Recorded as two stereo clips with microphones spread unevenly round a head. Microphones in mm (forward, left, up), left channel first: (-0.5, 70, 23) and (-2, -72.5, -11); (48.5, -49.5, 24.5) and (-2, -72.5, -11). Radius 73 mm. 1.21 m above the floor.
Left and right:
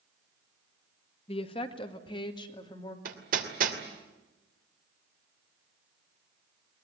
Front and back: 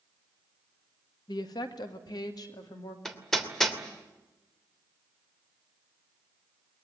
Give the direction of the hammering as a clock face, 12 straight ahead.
2 o'clock.